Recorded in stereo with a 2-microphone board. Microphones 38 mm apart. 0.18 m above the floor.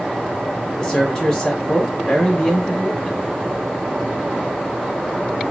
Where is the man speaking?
15° left (ahead or behind), 1.2 m.